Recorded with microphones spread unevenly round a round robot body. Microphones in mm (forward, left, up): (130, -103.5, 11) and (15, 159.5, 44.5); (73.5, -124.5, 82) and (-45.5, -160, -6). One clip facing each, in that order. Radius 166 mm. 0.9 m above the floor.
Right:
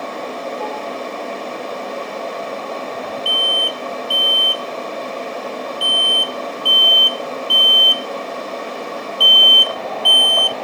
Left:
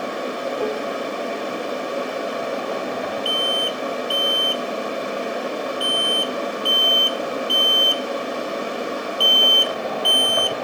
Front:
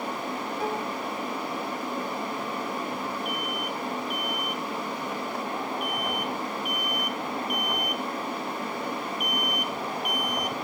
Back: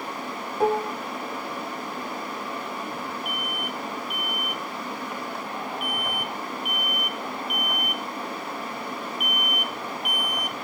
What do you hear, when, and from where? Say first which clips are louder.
0.6 s dishes clattering: left 3 dB, back 10 dB; 175° right
3.2 s an alarm: left 1 dB, front 1 dB; 85° left